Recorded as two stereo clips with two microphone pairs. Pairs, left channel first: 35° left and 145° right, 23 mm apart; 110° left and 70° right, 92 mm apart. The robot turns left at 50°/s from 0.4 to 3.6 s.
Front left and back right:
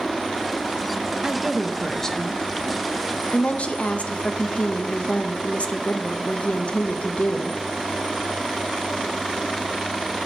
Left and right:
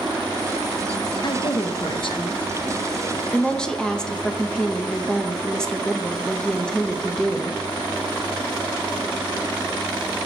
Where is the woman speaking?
145° left, 0.8 m; by 7.6 s 25° left, 0.8 m.